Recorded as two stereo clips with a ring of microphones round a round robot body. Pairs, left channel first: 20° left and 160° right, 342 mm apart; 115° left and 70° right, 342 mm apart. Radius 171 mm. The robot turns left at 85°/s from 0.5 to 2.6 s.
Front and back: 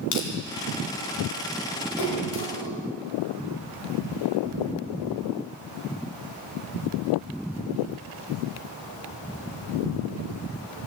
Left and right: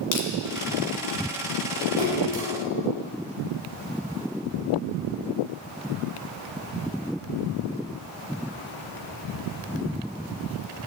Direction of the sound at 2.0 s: 5° left.